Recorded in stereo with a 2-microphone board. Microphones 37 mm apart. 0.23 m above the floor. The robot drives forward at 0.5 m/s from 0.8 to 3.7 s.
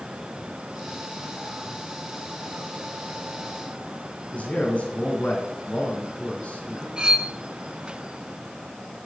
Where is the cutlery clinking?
25° right (ahead or behind), 1.6 m.